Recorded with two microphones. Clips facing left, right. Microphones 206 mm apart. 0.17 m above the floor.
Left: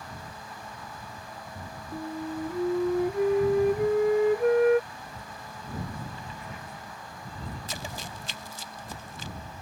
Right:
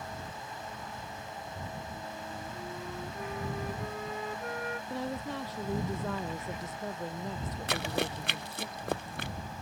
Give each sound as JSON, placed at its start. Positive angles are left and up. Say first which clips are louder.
{"t": 1.9, "sound": "a flute", "louder": "left 9 dB", "side_deg": 75}
{"t": 4.9, "sound": "a woman speaking", "louder": "right 10 dB", "side_deg": -80}
{"t": 7.7, "sound": "running footsteps", "louder": "right 7 dB", "side_deg": -65}